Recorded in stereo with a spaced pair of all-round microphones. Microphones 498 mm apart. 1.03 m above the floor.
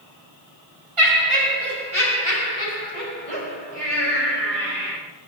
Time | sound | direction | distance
1.0 | laughter | 75° right (ahead or behind) | 5 m